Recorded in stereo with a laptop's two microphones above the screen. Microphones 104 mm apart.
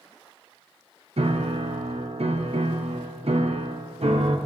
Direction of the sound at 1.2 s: 70° right (ahead or behind).